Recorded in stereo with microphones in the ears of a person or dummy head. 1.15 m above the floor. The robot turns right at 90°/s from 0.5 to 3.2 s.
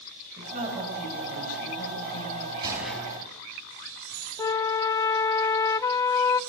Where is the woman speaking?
50° right, 6.5 m; by 2.5 s 130° left, 6.5 m.